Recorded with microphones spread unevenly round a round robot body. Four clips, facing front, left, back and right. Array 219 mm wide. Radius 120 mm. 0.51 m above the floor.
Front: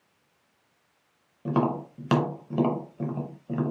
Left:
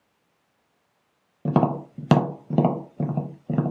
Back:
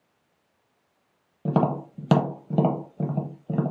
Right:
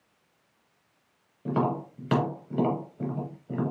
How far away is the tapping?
About 0.7 m.